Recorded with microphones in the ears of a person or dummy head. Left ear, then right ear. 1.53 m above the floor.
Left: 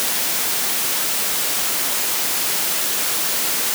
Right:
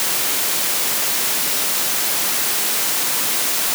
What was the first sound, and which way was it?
Only background noise.